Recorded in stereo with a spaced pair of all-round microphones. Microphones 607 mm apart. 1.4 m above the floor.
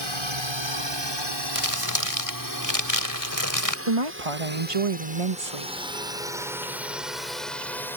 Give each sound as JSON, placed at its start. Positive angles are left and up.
{"t": 0.0, "sound": "a drone", "side_deg": -50}
{"t": 1.6, "sound": "crumpling", "side_deg": 30}
{"t": 3.9, "sound": "a woman speaking", "side_deg": -60}